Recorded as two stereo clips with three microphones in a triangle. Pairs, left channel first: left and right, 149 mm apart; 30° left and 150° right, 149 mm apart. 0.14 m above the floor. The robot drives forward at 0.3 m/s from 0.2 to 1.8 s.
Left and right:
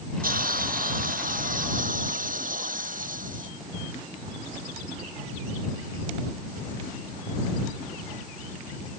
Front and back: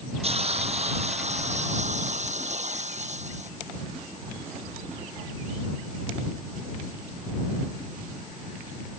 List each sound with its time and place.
0.2 s a hiss: 105° right; by 3.5 s 110° right